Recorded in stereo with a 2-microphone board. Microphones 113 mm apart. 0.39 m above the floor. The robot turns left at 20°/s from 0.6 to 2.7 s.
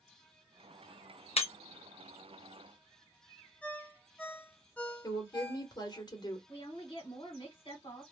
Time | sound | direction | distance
1.4 | breaking glass | 60° left (ahead or behind) | 0.7 m
3.6 | a ringtone | 10° left (ahead or behind) | 0.6 m
5.0 | a woman speaking | 35° left (ahead or behind) | 1.0 m
6.5 | a woman speaking | 45° left (ahead or behind) | 1.6 m